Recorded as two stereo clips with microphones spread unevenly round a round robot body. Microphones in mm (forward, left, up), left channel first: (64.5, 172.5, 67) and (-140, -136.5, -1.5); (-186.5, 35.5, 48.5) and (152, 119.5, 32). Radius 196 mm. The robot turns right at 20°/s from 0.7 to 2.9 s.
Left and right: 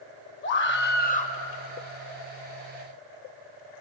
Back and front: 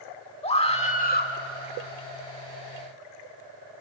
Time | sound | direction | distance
0.4 | a scream | 120° left | 2.0 m